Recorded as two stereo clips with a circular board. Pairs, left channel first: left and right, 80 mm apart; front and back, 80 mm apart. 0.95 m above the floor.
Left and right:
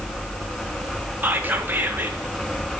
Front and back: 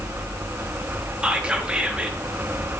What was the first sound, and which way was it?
Whispering, 115° right.